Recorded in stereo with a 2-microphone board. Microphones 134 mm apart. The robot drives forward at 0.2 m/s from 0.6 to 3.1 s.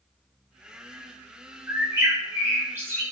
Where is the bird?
20° right (ahead or behind), 0.7 m; by 3.0 s 15° right (ahead or behind), 0.8 m.